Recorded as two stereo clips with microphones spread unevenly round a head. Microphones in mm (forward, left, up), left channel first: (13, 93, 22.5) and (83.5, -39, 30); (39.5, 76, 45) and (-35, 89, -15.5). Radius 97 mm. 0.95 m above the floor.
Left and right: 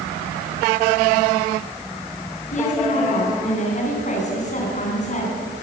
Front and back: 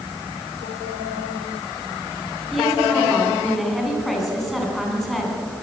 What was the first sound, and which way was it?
A woman speaking, 80° left.